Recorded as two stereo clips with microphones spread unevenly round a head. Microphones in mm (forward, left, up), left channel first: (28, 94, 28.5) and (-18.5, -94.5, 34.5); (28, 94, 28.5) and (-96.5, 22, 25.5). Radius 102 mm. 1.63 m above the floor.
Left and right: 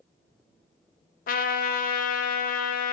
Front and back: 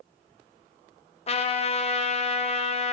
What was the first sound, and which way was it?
A trumpet, 45° left.